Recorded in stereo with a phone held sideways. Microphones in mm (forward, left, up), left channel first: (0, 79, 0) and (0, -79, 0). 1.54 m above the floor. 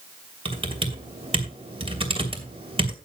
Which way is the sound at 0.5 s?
35° right (ahead or behind).